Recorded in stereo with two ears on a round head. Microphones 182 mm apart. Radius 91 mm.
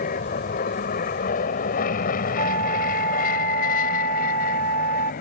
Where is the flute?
85° right.